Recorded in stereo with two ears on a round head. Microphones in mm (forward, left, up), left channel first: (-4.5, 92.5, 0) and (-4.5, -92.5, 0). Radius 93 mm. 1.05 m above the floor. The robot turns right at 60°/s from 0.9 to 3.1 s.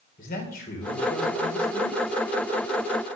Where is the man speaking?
45° left, 3.5 m; by 2.0 s 110° left, 3.5 m.